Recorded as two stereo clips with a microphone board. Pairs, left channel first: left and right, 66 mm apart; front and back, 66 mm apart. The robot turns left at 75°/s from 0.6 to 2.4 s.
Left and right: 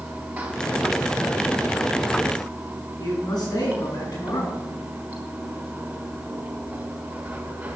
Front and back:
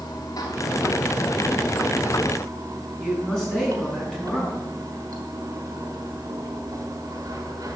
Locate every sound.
0.0 s running water: 20° right, 3 m; by 7.8 s 155° right, 3 m
3.0 s a man speaking: 85° left, 6.5 m